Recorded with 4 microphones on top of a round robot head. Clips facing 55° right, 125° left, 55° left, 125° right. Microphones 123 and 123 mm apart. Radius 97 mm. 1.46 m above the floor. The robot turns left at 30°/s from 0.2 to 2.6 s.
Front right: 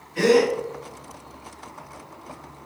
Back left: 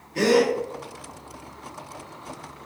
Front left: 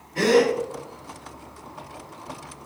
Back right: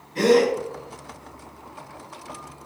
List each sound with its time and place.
0.1 s a gasp: 150° left, 1.4 m; by 0.5 s 140° left, 1.4 m